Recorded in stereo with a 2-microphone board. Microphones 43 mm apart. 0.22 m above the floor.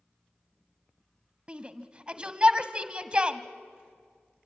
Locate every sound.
1.5 s a shout: 25° right (ahead or behind), 1.0 m